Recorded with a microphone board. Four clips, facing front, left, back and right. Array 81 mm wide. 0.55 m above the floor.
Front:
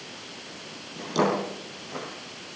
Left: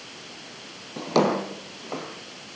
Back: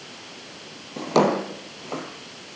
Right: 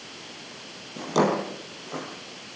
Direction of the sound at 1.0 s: 150° left.